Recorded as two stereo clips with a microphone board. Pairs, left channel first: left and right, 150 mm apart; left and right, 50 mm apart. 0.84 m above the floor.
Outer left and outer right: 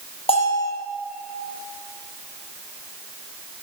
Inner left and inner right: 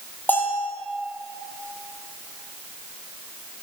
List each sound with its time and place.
0.3 s a bell: 40° left (ahead or behind), 5 m